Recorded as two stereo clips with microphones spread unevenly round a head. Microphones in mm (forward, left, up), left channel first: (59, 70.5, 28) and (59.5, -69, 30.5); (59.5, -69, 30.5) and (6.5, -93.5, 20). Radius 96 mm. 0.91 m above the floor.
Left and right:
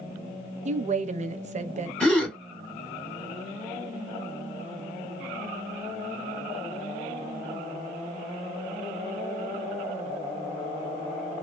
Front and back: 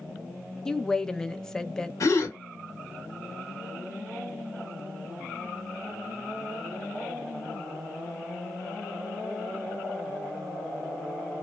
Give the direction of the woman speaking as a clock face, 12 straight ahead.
2 o'clock.